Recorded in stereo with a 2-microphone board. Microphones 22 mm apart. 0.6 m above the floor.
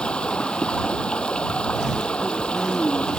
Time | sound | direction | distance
0.0 | running water | 55° left (ahead or behind) | ?